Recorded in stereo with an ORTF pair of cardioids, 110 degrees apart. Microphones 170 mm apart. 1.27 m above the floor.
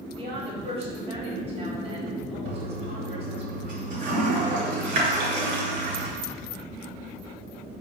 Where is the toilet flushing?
50° right, 1.4 m.